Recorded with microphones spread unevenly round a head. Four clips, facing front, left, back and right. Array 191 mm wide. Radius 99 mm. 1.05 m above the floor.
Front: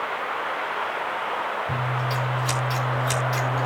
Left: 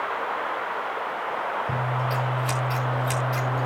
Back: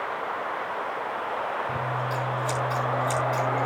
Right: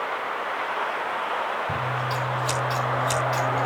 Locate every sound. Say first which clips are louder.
1.7 s scissors: even, front 1 dB; 50° left, 5 m